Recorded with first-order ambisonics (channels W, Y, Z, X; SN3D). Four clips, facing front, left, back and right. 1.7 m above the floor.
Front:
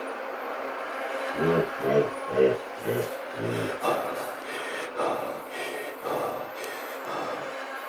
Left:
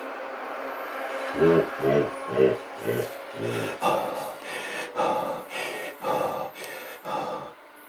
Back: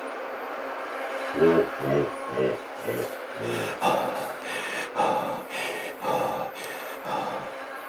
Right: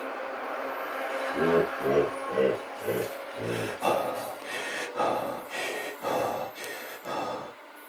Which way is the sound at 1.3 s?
155° left.